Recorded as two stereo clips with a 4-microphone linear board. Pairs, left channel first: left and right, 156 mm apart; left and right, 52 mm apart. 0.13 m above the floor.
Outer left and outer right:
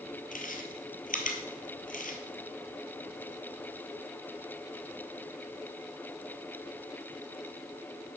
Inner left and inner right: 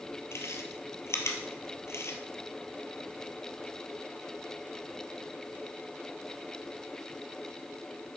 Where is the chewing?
60° left (ahead or behind), 1.5 m.